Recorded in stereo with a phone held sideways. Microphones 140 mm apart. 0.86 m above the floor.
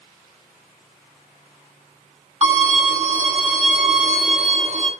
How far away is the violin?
About 5.5 m.